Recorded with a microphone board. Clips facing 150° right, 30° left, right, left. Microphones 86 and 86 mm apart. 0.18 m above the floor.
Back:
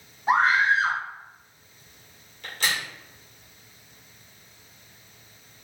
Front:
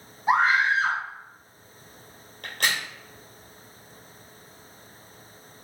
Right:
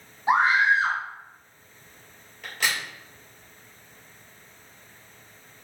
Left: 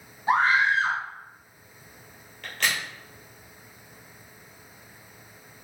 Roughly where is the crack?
Ahead.